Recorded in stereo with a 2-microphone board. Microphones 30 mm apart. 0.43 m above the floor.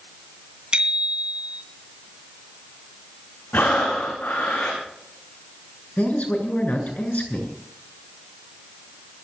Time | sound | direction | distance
0.7 | a bicycle bell | 35° right (ahead or behind) | 3 m
3.5 | breathing | 85° left | 7.5 m
6.0 | a man speaking | 55° left (ahead or behind) | 7 m